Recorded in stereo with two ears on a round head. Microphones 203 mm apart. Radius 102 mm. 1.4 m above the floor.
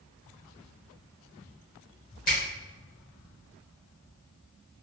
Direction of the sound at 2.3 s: 40° left (ahead or behind).